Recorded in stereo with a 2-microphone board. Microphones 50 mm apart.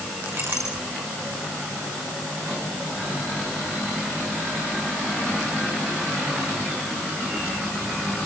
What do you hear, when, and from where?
0.3 s a clink: 55° right (ahead or behind), 7 m